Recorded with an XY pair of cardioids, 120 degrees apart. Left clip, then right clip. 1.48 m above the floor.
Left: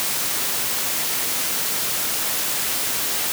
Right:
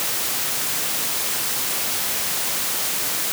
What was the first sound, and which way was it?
Only background noise.